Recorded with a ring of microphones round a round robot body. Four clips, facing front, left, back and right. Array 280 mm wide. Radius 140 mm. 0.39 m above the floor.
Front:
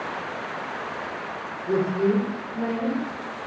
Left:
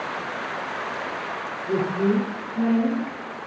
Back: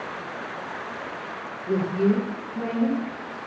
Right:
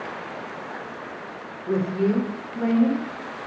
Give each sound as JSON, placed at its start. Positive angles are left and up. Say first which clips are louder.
{"t": 1.7, "sound": "a woman speaking", "louder": "even, even", "azimuth_deg": -105, "distance_m": 0.9}